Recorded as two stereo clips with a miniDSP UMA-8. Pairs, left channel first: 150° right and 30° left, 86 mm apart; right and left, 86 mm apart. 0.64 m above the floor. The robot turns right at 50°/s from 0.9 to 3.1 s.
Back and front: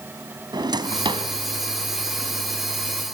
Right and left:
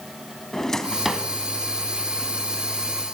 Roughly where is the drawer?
Ahead.